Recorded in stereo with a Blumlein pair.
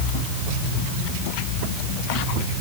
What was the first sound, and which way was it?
Only background noise.